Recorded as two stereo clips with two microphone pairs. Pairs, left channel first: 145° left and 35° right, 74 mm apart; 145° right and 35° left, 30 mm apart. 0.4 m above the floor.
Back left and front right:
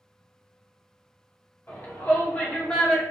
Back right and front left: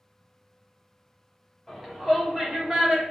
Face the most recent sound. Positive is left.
turn(degrees=75)